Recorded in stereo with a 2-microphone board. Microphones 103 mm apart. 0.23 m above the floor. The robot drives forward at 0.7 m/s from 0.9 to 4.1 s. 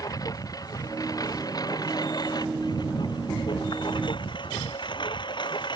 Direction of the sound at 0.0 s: 40° left (ahead or behind).